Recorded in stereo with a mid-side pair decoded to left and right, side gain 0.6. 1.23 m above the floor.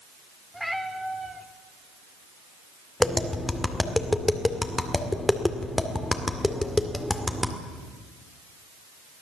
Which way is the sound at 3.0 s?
10° left.